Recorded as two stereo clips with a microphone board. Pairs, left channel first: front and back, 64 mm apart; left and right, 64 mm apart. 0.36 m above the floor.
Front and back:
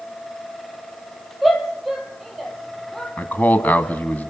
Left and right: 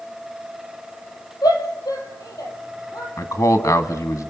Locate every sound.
1.4 s a shout: 95° left, 8.5 m; by 3.1 s 85° left, 9 m
3.2 s a man speaking: 65° left, 2.5 m